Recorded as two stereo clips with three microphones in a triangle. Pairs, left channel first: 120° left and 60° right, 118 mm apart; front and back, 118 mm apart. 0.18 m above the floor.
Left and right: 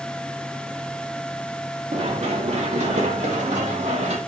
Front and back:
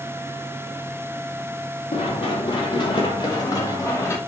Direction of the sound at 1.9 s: 40° right.